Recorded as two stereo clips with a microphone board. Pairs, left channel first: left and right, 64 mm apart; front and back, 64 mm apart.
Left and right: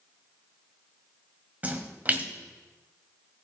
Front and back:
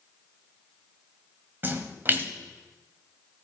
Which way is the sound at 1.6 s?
140° right.